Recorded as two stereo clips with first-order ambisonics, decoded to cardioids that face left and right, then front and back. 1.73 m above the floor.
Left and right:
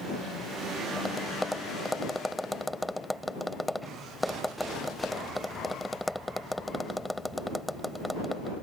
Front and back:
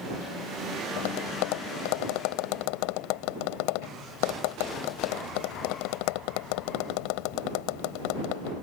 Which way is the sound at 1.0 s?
Straight ahead.